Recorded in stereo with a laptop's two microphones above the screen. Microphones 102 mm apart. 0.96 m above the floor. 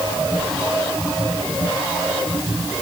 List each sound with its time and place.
Only background noise.